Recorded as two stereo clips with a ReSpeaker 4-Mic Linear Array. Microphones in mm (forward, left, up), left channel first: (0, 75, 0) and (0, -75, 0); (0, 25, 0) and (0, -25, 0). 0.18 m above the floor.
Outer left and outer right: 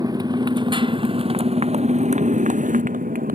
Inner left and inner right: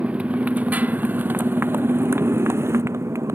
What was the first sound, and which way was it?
A motorcycle, 25° right (ahead or behind).